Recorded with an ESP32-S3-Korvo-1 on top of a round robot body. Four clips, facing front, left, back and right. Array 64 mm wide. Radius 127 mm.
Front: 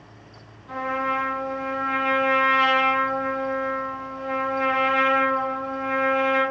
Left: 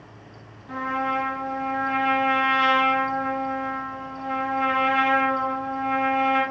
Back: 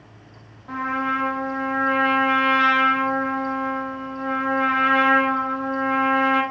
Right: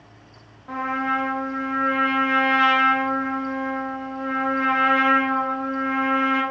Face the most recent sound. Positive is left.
turn(degrees=-125)